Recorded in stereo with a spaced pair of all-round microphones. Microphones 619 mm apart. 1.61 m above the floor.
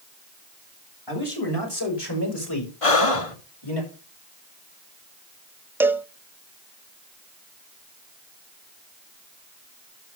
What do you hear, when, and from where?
1.1 s a man speaking: 40° left (ahead or behind), 6.5 m
2.8 s breathing: 60° left (ahead or behind), 1.3 m
5.8 s a cowbell: 5° right (ahead or behind), 0.5 m